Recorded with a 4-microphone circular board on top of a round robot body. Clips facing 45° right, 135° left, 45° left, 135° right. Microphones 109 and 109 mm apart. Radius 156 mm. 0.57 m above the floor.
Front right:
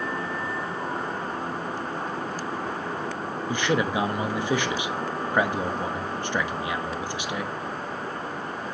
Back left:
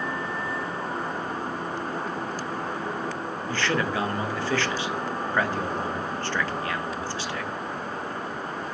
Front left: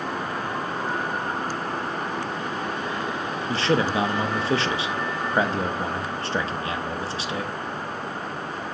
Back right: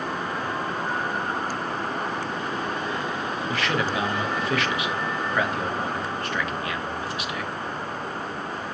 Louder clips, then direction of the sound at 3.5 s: Front right 2 dB, front left 5 dB; 15° left.